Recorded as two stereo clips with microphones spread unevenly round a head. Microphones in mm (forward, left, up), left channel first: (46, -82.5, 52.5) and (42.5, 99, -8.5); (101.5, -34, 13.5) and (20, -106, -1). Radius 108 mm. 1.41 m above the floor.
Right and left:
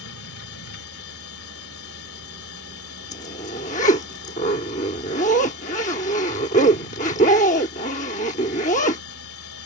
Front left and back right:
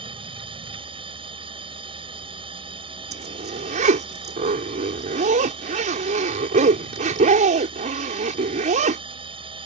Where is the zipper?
145° right.